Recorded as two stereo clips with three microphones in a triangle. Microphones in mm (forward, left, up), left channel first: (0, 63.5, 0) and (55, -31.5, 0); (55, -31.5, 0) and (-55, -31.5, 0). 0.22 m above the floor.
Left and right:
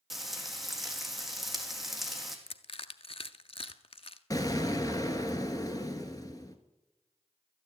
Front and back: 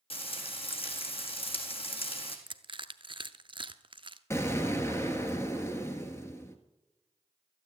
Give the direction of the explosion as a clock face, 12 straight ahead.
10 o'clock.